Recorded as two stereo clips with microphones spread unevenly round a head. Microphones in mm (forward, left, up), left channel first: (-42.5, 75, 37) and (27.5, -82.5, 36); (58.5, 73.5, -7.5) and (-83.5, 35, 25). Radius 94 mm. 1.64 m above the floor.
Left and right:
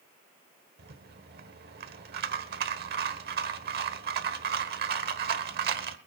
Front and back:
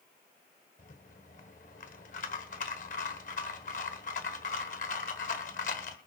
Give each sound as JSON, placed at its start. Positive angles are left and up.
{"t": 0.8, "sound": "a rattle", "azimuth_deg": -30, "distance_m": 1.1}